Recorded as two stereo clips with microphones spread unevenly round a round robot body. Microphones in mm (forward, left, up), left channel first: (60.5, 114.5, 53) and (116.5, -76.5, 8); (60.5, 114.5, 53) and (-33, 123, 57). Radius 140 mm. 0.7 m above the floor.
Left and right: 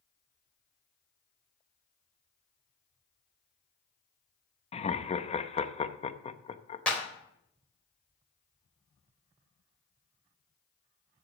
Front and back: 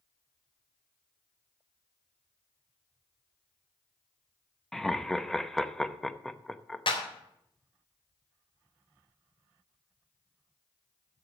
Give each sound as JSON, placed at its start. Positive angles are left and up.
{"t": 4.7, "sound": "laughter", "azimuth_deg": 65, "distance_m": 0.8}
{"t": 6.9, "sound": "a clap", "azimuth_deg": 20, "distance_m": 3.5}